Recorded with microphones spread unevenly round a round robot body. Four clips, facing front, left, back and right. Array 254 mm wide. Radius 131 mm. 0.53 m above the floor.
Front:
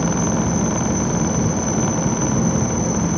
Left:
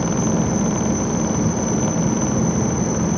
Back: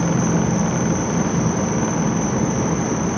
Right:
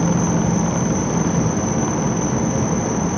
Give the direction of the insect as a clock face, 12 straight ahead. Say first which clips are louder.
Right 1 dB, back 1 dB; 9 o'clock.